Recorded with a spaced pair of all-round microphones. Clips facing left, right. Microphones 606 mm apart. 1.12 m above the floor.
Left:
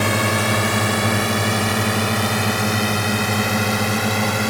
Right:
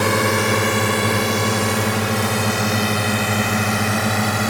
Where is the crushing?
No crushing in this recording.